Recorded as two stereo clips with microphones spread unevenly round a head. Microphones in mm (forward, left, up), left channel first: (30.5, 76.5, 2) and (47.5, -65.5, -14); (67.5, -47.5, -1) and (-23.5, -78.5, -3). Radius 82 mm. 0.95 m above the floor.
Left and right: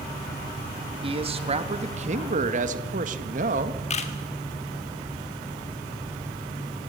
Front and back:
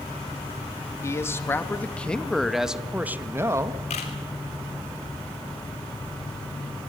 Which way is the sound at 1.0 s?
40° right.